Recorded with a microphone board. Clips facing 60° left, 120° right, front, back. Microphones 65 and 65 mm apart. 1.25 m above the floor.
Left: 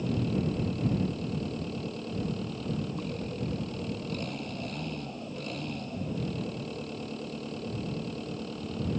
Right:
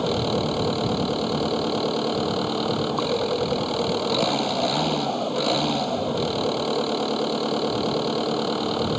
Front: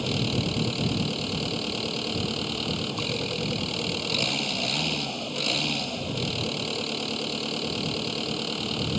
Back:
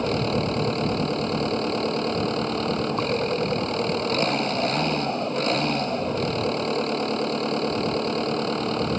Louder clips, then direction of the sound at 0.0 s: Right 7 dB, back 5 dB; 125° right.